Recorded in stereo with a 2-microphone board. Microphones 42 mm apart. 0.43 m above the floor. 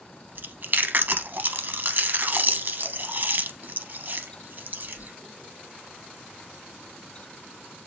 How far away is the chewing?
About 0.6 m.